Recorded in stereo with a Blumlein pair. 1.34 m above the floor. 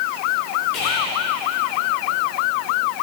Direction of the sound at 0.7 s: 40° left.